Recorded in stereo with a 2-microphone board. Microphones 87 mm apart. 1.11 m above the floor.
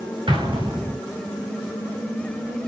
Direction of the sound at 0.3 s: 60° right (ahead or behind).